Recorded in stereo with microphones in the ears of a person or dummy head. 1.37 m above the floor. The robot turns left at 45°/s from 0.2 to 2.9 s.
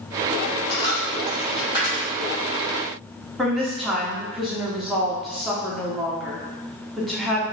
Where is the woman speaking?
Centre (ahead or behind), 0.5 m.